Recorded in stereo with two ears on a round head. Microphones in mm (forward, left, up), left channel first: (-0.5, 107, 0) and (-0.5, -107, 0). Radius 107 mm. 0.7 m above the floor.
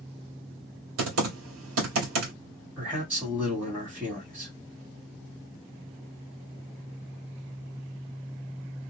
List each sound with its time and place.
1.0 s typing on a keyboard: 65° right (ahead or behind), 1.5 m
2.8 s a man speaking: 10° right (ahead or behind), 1.7 m